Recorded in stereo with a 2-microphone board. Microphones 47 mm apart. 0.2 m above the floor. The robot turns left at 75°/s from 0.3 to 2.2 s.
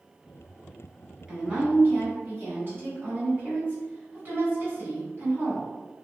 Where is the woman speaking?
15° right, 1.7 m; by 5.7 s 85° right, 1.7 m.